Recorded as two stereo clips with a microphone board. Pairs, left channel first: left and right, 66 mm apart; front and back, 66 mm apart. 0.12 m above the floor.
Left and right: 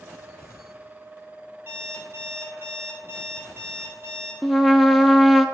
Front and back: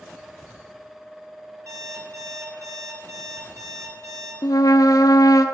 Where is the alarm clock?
145° right, 6.5 m.